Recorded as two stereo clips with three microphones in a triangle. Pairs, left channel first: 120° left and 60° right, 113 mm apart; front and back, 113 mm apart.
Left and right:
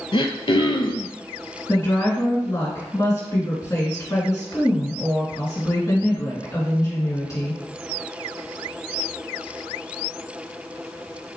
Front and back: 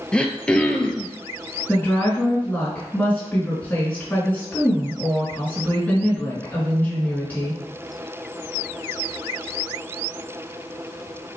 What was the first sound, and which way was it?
Throat clearing, 80° left.